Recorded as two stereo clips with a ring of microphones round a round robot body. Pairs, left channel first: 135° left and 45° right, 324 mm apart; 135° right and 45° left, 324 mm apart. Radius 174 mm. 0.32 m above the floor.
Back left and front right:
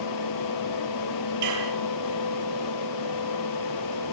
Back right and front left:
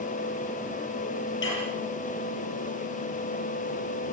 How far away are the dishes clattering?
About 6.5 m.